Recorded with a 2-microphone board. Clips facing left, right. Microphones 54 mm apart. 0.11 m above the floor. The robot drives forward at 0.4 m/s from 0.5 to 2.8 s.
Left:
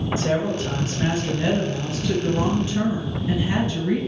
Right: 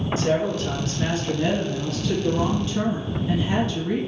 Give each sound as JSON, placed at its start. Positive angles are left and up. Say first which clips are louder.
{"t": 0.2, "sound": "a woman speaking", "louder": "right 1 dB", "side_deg": 20, "distance_m": 1.5}